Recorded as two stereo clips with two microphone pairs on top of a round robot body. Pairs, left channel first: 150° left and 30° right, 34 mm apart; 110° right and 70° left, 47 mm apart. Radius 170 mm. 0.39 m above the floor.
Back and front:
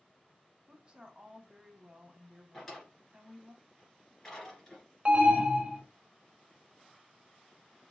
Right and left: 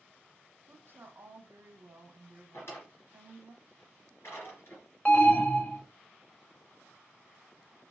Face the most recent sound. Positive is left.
turn(degrees=-80)